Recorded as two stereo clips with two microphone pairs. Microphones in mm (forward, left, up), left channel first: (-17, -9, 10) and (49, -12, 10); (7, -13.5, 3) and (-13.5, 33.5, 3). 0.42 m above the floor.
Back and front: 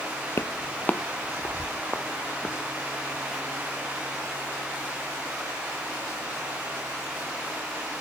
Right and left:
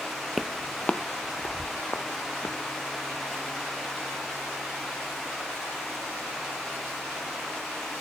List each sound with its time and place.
0.4 s footsteps: 160° right, 0.5 m; by 2.6 s 105° right, 2.5 m